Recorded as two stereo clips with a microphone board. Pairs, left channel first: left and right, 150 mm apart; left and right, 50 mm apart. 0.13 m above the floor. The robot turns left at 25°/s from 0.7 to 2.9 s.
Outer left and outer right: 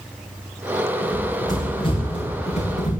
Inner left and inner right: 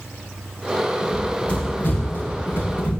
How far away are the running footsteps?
About 9.5 m.